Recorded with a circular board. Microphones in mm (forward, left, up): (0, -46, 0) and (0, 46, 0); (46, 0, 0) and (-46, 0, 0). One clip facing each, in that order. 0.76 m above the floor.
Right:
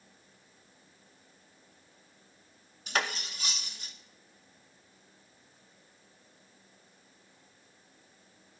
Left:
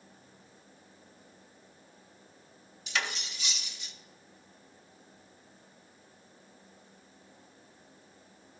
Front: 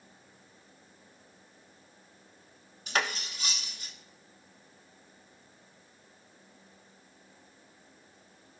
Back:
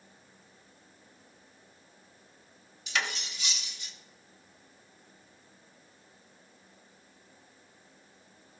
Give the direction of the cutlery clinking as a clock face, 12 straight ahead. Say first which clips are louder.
Right 3 dB, front 2 dB; 1 o'clock.